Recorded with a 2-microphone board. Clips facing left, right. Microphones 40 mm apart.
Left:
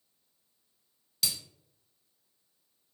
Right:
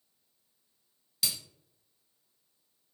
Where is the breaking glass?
5° right (ahead or behind), 0.8 m.